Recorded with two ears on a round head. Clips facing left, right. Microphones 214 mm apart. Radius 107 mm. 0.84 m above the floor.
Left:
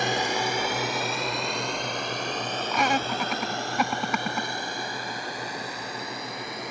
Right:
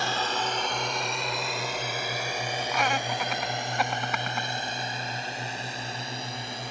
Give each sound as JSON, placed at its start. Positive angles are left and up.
{"t": 0.0, "sound": "a drone", "side_deg": 15}
{"t": 2.7, "sound": "laughter", "side_deg": 80}